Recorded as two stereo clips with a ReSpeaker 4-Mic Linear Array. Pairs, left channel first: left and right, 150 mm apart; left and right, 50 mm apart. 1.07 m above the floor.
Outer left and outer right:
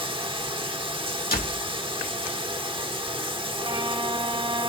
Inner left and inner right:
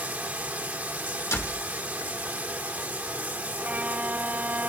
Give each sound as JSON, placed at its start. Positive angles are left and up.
{"t": 0.0, "sound": "running water", "side_deg": -35, "distance_m": 1.1}
{"t": 1.3, "sound": "a door slam", "side_deg": 75, "distance_m": 2.5}
{"t": 3.6, "sound": "a violin", "side_deg": -35, "distance_m": 0.6}